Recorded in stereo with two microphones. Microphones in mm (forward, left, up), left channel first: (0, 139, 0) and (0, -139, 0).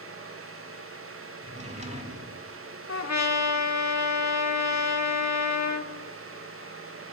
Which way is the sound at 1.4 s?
25° right (ahead or behind).